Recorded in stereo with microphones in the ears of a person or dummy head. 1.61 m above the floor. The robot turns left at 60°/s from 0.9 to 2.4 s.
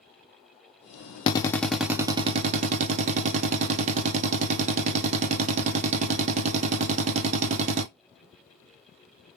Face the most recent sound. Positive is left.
turn(degrees=-35)